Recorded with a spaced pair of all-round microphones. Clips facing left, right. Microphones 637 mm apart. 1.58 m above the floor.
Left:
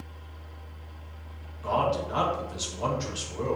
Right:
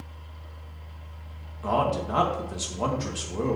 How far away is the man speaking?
About 1.9 m.